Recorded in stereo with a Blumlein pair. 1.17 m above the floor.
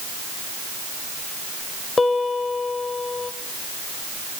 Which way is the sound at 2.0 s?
15° left.